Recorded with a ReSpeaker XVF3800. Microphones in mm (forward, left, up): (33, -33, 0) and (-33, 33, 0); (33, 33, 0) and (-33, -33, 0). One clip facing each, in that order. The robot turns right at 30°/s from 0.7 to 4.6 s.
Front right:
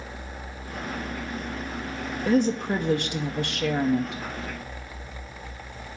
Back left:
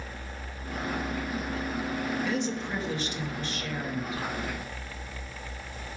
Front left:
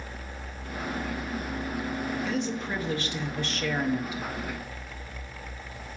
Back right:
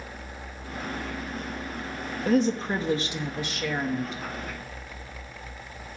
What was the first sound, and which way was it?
A woman speaking, 90° right.